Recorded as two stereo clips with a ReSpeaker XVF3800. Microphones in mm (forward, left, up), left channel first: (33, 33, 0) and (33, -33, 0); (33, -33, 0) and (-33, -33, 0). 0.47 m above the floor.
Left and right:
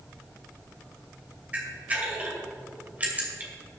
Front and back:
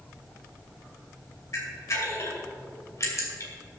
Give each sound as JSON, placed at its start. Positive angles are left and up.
{"t": 1.5, "sound": "a camera shutter", "azimuth_deg": -30, "distance_m": 2.5}